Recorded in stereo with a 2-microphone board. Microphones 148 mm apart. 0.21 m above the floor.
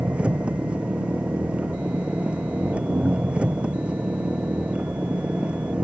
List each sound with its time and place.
0.0 s an engine running: 10° right (ahead or behind)